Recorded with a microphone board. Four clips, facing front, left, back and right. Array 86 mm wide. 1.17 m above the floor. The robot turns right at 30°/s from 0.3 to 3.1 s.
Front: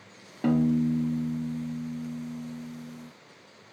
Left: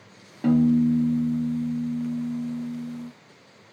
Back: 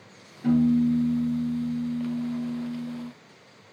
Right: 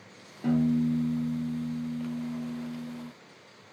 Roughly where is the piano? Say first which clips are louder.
Left 6 dB, back 3 dB; ahead left.